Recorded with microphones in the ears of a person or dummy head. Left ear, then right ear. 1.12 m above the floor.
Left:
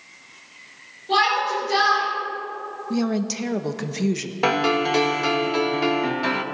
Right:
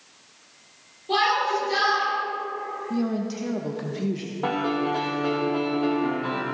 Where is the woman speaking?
70° left (ahead or behind), 0.9 m.